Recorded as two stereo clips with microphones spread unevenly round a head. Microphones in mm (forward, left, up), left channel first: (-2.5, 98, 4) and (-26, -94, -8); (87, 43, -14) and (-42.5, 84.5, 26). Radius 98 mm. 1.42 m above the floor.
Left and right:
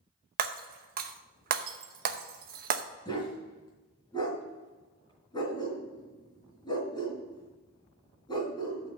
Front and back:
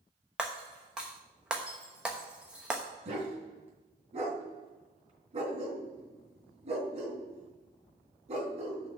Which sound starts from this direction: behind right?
Breaking glass, at 0.4 s.